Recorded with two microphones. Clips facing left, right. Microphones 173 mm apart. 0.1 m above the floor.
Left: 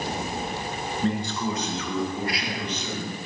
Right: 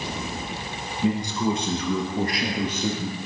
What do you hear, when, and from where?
1.0 s a man speaking: 5° right (ahead or behind), 1.4 m; by 3.1 s 55° right (ahead or behind), 3 m